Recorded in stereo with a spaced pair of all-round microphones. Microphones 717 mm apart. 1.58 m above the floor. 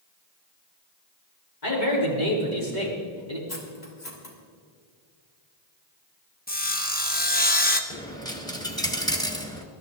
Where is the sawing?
15° left (ahead or behind), 1.2 m.